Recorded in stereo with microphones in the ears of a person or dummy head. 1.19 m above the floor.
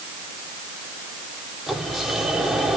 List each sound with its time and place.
1.7 s a sliding door: centre (ahead or behind), 2.5 m